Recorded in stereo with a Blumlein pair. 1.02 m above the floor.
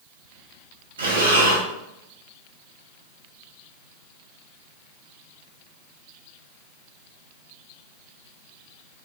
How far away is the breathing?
About 0.9 m.